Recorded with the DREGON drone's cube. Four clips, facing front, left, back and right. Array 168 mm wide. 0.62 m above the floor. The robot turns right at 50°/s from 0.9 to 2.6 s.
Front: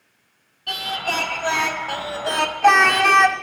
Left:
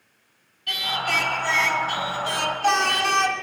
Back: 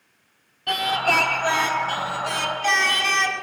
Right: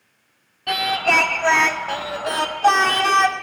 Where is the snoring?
No snoring in this recording.